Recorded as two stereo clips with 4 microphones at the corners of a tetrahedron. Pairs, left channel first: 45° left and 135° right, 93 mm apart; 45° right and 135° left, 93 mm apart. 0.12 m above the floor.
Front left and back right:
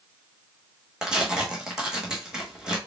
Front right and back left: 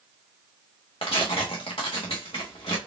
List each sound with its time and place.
1.0 s tearing paper: 55° right, 1.4 m